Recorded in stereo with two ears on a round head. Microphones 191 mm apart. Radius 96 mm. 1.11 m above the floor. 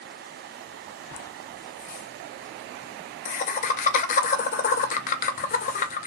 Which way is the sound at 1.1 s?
35° left (ahead or behind).